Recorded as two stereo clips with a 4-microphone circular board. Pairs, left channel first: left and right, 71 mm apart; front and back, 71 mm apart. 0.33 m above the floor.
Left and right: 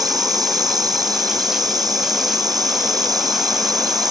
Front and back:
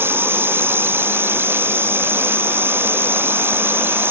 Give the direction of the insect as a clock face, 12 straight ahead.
4 o'clock.